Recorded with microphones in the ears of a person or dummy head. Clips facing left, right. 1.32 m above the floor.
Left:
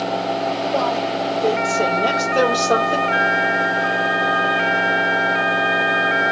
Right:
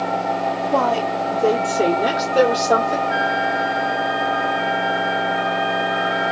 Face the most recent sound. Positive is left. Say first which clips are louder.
# even
turn(degrees=-50)  # may be behind; listen again after turning